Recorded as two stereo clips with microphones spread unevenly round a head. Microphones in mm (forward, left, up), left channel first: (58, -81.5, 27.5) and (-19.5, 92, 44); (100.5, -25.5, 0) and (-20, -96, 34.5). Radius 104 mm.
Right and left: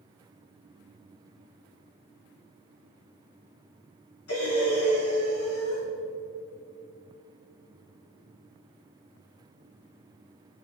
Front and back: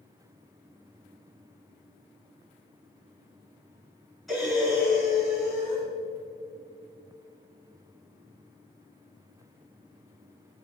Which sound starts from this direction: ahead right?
Breathing, at 4.3 s.